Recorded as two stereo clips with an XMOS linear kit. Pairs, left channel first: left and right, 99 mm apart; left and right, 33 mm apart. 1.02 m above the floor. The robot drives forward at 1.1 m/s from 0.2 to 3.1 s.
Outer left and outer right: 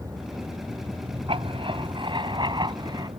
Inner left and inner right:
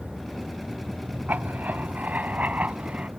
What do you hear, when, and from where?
0.0 s a vehicle: 35° right (ahead or behind); by 3.2 s 70° right (ahead or behind)
1.3 s writing: 65° right (ahead or behind); by 3.1 s 45° right (ahead or behind)